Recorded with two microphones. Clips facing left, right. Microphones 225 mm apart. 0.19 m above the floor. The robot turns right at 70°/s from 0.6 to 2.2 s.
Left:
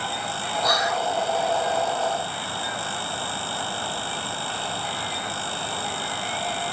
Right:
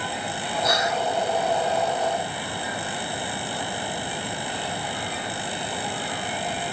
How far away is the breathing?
No breathing in this recording.